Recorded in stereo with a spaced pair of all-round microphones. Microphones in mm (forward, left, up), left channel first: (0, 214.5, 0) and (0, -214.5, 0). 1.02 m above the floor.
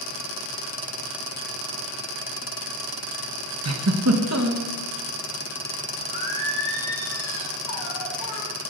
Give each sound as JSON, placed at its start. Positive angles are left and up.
{"t": 3.6, "sound": "a giggle", "side_deg": -35, "distance_m": 1.3}
{"t": 6.1, "sound": "singing", "side_deg": -20, "distance_m": 4.5}